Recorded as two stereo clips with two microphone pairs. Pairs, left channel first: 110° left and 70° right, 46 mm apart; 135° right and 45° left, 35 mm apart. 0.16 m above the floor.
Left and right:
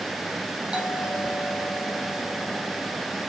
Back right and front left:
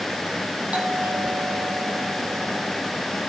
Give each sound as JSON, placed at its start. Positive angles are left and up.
{"t": 0.7, "sound": "a doorbell", "azimuth_deg": -5, "distance_m": 7.5}